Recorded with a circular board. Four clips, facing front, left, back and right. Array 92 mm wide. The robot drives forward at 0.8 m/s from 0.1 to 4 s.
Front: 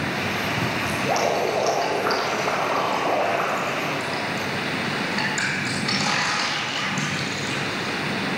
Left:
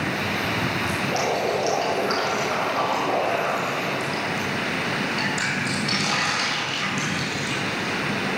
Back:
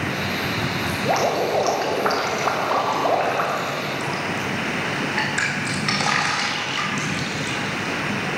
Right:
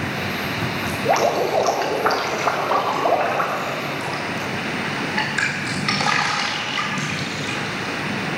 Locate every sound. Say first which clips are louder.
0.9 s dripping: right 9 dB, back 2 dB; 115° right, 4 m; by 7.9 s 140° right, 5.5 m